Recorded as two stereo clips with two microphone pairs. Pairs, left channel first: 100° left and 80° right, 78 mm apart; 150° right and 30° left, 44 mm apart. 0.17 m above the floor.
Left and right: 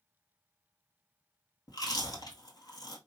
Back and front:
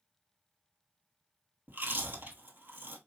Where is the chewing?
70° left, 1.1 m.